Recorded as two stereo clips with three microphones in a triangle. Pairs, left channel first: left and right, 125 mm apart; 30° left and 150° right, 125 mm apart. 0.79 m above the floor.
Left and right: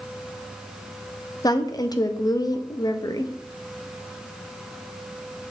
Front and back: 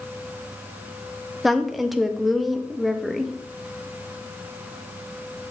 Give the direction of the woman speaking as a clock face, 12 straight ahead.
8 o'clock.